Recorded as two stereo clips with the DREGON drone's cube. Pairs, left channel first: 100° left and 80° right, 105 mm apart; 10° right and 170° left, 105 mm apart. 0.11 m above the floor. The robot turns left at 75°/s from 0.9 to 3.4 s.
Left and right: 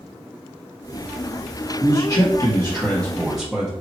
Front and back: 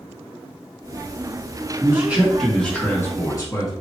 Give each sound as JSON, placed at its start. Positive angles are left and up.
{"t": 1.8, "sound": "a man speaking", "azimuth_deg": 125, "distance_m": 1.9}